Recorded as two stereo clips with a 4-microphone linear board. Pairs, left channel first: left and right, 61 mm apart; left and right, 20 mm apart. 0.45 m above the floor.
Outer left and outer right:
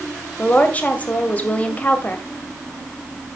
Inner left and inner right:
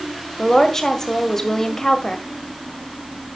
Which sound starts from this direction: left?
A woman speaking, at 0.4 s.